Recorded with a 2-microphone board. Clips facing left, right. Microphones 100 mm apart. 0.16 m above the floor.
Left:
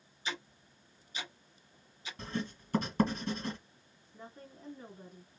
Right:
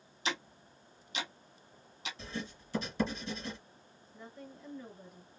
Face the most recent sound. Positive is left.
turn(degrees=30)  # may be behind; listen again after turning